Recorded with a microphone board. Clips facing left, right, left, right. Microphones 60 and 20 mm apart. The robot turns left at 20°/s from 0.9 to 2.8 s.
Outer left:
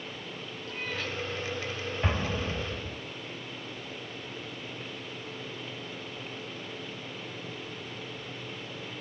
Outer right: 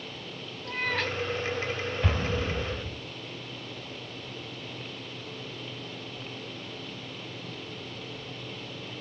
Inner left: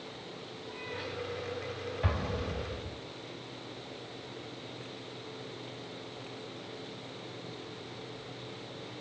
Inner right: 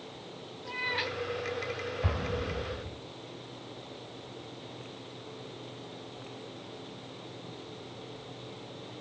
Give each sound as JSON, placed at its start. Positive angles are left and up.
{"t": 0.7, "sound": "a cat meowing", "side_deg": -70, "distance_m": 1.9}
{"t": 2.0, "sound": "an explosion", "side_deg": 20, "distance_m": 2.5}